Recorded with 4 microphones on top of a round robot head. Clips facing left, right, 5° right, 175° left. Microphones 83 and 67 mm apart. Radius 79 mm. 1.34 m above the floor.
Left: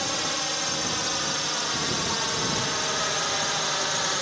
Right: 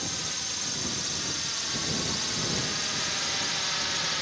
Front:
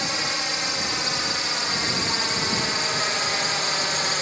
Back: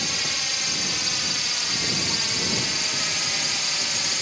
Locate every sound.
0.0 s a drone: 50° left; by 4.2 s 35° left